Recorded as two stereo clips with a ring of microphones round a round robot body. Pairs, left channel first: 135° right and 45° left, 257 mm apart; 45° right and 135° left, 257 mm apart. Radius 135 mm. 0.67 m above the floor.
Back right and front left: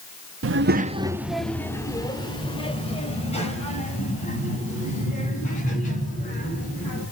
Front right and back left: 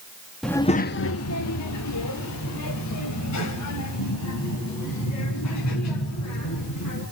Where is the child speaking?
45° left, 0.9 m; by 7.0 s 75° right, 8.5 m.